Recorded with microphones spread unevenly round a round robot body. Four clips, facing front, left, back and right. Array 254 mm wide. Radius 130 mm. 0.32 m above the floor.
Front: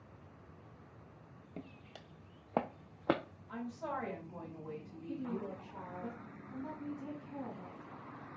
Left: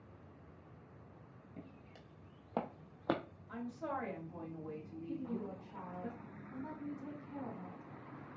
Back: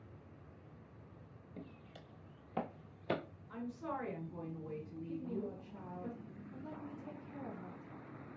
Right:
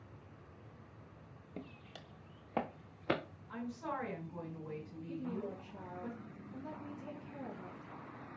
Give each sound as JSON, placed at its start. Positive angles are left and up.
{"t": 1.6, "sound": "footsteps", "azimuth_deg": -50, "distance_m": 0.7}
{"t": 3.5, "sound": "a woman speaking", "azimuth_deg": 45, "distance_m": 2.0}
{"t": 5.1, "sound": "a woman speaking", "azimuth_deg": 45, "distance_m": 2.0}